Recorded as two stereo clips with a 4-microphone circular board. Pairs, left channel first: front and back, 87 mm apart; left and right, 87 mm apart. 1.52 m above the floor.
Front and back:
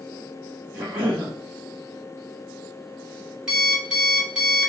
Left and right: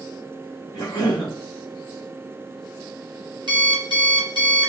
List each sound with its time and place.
0.7 s a cough: 115° left, 1.8 m
3.5 s an alarm clock: 100° right, 1.5 m